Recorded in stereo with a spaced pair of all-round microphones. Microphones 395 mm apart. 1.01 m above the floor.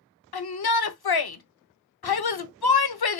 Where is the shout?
65° left (ahead or behind), 0.6 m.